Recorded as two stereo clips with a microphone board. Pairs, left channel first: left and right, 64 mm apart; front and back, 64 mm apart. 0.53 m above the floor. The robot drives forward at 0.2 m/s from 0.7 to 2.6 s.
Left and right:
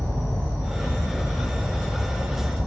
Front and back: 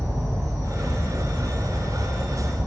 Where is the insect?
155° left, 1.5 m; by 2.7 s 160° left, 1.9 m.